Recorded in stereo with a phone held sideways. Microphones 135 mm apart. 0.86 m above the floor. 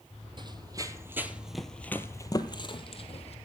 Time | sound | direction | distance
0.4 | running footsteps | 35° right (ahead or behind) | 1.2 m